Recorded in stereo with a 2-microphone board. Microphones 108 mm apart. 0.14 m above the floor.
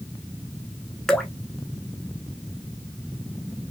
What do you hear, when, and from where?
1.1 s dripping: 5° left (ahead or behind), 0.6 m